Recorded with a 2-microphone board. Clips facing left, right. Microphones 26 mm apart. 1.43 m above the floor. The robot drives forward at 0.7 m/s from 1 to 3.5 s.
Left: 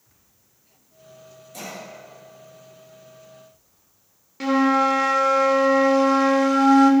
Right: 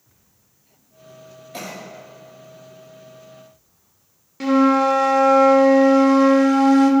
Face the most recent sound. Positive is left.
turn(degrees=5)  # may be behind; listen again after turning